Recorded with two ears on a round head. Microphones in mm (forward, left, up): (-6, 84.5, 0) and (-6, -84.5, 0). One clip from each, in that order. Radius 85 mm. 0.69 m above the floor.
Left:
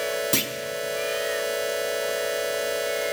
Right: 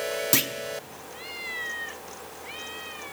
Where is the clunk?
25° right (ahead or behind), 0.8 m.